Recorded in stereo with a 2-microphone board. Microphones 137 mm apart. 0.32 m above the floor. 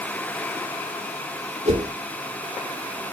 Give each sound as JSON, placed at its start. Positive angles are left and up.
{"t": 1.6, "sound": "a whoosh", "side_deg": -50, "distance_m": 0.5}